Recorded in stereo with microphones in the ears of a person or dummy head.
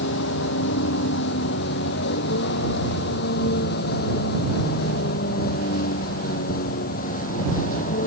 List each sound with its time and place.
0.0 s a vehicle: 70° left (ahead or behind); by 8.1 s 45° left (ahead or behind)